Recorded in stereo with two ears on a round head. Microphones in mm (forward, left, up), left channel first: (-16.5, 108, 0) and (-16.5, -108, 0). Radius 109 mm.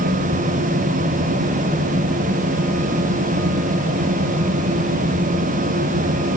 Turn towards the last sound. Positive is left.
No sound to turn to.